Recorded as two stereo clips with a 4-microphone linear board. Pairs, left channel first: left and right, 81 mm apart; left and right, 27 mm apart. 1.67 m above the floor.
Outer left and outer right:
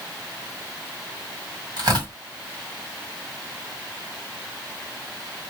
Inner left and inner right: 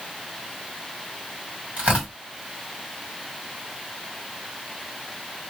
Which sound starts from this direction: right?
Tearing paper, at 1.8 s.